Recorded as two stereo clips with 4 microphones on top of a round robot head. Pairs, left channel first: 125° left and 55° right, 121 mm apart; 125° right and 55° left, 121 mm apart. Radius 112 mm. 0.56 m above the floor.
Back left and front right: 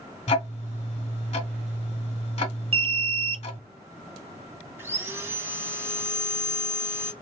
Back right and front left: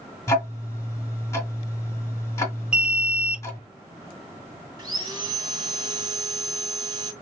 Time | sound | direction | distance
0.3 | ticking | 165° left | 1.4 m
2.7 | an alarm | 25° right | 0.6 m
4.8 | sawing | 10° left | 1.8 m